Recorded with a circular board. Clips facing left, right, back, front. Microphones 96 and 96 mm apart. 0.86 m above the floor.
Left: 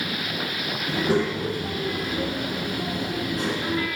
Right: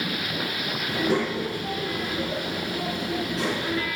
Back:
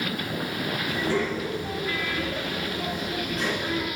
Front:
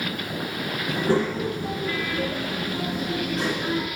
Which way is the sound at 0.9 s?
40° left.